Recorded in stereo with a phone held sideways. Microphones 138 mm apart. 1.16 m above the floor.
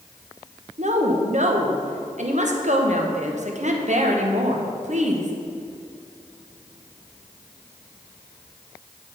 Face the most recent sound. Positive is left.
turn(degrees=-60)  # may be behind; listen again after turning